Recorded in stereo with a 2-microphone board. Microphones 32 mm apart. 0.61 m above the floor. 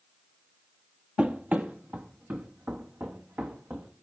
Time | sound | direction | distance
1.2 | running footsteps | 35° right (ahead or behind) | 1.1 m